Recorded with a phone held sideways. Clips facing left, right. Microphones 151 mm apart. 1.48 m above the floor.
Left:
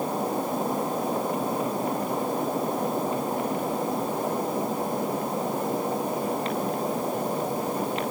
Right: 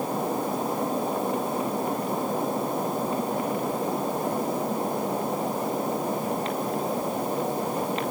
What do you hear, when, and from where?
Only background noise.